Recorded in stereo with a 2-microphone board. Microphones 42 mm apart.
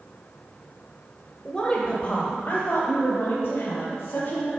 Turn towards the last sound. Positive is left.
turn(degrees=65)  # may be behind; listen again after turning